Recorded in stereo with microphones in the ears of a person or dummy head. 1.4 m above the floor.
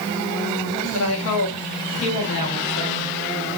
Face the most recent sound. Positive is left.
turn(degrees=75)  # may be behind; listen again after turning